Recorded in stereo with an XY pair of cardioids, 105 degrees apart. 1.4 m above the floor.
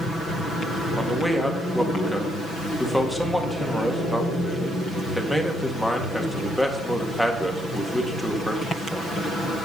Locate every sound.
1.0 s a man speaking: straight ahead, 2.0 m